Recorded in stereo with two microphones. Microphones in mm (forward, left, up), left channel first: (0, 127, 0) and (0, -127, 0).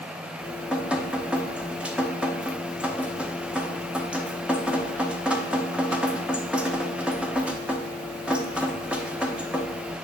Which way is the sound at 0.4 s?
5° right (ahead or behind).